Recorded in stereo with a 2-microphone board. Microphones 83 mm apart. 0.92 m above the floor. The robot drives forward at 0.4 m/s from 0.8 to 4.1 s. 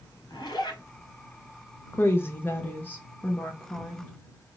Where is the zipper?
55° left (ahead or behind), 2 m.